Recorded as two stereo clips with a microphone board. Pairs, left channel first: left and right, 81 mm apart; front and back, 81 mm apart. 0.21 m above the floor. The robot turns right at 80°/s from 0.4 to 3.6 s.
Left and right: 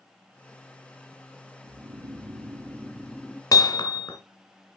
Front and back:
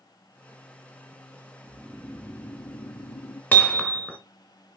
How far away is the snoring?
About 2.5 m.